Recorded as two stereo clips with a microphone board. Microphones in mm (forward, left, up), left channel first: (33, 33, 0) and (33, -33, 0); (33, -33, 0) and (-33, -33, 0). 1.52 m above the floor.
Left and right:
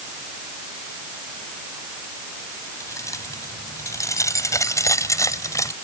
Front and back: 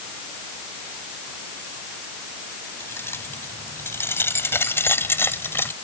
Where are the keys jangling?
55° left.